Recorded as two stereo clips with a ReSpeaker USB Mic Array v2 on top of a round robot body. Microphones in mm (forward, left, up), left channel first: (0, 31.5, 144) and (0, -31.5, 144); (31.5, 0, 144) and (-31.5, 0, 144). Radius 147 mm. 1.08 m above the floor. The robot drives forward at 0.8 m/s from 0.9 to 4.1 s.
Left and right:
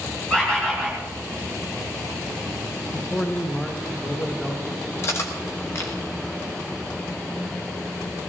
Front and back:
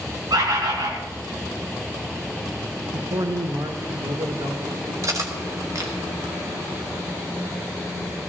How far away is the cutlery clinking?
About 1.2 m.